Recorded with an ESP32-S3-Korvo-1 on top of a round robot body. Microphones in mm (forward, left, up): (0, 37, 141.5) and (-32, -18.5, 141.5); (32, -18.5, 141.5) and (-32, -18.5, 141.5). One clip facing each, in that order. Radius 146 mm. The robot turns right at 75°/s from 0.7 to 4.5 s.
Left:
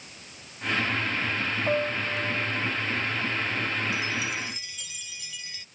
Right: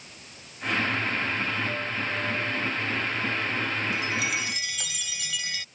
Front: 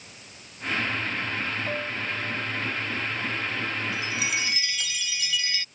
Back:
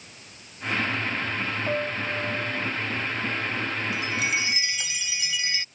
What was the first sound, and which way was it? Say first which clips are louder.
A piano: left 3 dB, back 3 dB; 105° left.